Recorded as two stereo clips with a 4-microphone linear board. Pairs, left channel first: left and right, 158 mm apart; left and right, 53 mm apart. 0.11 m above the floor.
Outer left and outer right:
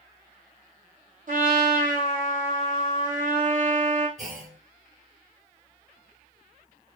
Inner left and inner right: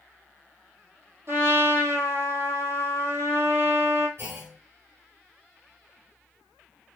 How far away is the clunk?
About 1.5 m.